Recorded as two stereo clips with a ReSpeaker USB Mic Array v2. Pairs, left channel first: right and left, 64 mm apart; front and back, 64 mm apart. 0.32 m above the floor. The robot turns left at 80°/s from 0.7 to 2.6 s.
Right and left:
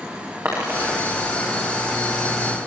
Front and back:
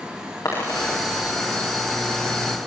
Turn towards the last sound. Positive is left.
turn(degrees=-105)